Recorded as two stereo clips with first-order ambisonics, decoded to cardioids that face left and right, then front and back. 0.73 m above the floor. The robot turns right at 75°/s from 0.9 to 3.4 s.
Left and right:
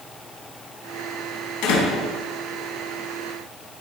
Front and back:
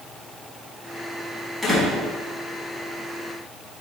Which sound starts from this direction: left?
A door slam, at 1.6 s.